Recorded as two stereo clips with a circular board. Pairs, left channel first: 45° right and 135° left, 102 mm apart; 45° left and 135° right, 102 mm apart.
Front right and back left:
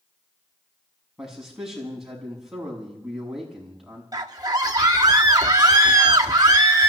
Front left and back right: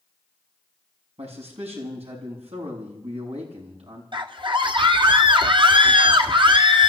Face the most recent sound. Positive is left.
turn(degrees=-175)